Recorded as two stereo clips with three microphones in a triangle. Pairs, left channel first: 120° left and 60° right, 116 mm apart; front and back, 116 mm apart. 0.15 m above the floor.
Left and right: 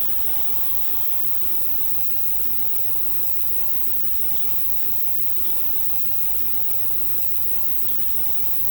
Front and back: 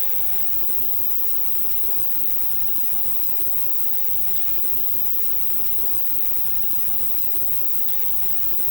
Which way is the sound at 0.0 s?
15° right.